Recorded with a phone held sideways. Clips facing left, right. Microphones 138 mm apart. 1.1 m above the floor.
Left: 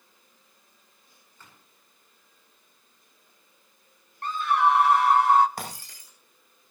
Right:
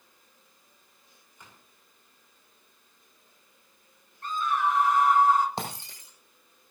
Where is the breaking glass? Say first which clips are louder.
Right 2 dB; 25° right (ahead or behind), 6.5 m.